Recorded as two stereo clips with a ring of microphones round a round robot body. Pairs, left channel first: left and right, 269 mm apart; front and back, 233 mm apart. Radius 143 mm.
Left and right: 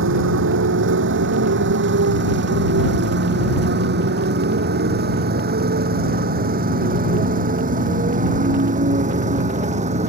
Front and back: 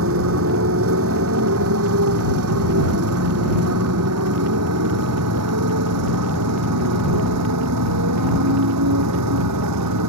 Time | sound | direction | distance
0.0 | a motorcycle | 135° right | ?